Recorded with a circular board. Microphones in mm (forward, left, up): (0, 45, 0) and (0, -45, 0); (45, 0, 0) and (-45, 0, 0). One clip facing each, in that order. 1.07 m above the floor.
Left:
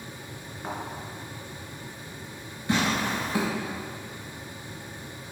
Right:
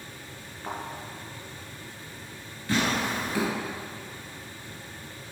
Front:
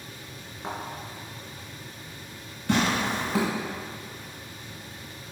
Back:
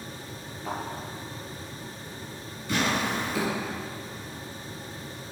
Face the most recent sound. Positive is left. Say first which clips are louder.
# left 1 dB, front 2 dB
turn(degrees=20)